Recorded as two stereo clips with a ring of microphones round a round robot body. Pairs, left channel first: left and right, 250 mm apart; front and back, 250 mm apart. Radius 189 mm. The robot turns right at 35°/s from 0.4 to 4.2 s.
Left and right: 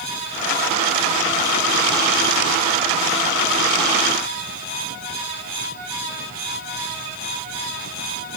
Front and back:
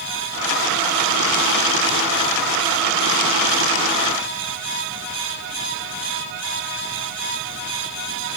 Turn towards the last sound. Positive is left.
No sound to turn to.